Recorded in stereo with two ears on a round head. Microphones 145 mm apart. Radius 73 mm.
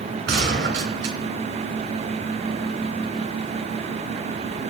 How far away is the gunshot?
About 2.5 m.